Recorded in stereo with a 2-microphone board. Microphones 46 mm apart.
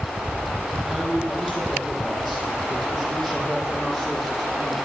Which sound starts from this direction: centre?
A man speaking, at 0.8 s.